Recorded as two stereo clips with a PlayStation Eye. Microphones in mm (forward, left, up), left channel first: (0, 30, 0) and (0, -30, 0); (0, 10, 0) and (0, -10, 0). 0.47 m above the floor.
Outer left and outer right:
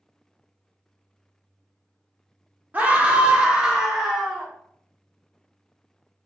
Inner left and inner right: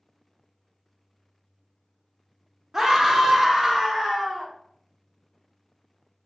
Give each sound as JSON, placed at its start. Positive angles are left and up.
{"t": 2.7, "sound": "a scream", "side_deg": -25, "distance_m": 0.9}